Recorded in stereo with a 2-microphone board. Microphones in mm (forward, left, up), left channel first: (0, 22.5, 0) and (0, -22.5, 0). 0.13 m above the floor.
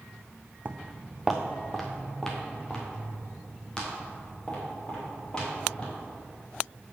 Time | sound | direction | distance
0.7 | footsteps | 35° right (ahead or behind) | 0.5 m